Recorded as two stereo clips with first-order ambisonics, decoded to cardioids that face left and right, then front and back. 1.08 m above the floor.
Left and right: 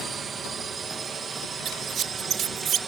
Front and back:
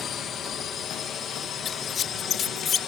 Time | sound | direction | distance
0.0 | a drone | 35° right | ?
1.6 | a squeak | 50° right | ?